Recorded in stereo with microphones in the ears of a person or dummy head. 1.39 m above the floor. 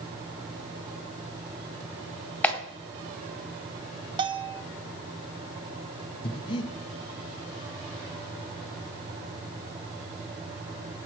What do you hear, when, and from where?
2.4 s a clap: 10° left (ahead or behind), 2 m
4.2 s a bell: 25° right (ahead or behind), 0.5 m
6.2 s breathing: 25° left (ahead or behind), 1.0 m